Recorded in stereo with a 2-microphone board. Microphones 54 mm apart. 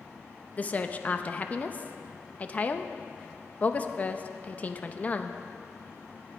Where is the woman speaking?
30° left (ahead or behind), 0.6 m.